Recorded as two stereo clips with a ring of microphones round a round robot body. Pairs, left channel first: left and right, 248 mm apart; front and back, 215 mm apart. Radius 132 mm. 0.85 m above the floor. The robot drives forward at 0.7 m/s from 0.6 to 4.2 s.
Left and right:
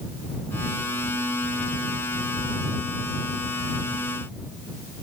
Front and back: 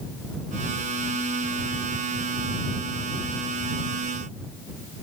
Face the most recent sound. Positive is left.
No sound to turn to.